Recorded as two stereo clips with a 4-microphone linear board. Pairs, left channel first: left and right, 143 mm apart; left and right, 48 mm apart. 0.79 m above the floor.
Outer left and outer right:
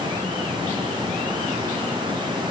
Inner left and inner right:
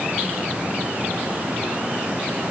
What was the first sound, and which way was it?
Only background noise.